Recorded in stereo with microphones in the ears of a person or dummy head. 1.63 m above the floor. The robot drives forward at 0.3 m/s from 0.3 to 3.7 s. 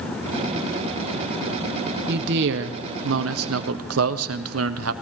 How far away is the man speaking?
About 1.0 m.